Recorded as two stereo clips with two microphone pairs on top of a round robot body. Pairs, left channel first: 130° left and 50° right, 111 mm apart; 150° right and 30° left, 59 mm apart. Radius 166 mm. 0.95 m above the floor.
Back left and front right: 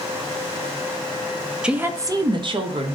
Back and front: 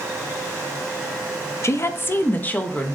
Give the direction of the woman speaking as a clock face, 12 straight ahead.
5 o'clock.